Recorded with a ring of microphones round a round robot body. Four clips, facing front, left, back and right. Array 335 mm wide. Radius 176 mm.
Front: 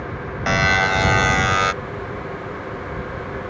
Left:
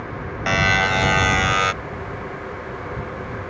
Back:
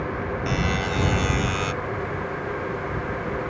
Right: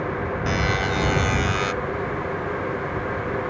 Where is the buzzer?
35° left.